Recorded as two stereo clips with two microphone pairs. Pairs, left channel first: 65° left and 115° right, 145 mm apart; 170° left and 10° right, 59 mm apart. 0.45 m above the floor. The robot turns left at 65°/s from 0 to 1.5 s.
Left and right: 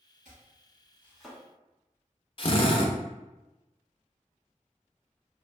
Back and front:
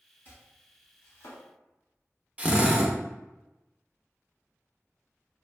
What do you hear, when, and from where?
0.2 s chopping: 140° right, 1.2 m; by 1.4 s 145° left, 1.2 m
2.4 s a drill: 50° left, 0.5 m